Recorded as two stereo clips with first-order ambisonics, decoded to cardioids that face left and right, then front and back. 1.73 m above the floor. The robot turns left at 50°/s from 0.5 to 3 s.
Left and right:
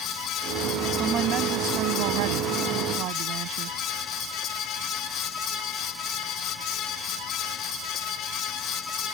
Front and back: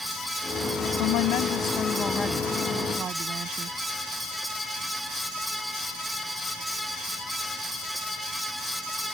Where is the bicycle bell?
I don't hear a bicycle bell.